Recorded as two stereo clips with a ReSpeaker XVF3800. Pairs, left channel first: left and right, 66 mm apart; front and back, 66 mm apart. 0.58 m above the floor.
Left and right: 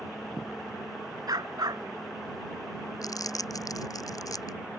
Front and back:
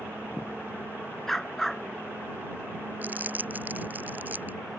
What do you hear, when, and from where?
1.3 s a dog barking: 85° right
3.0 s crumpling: 115° left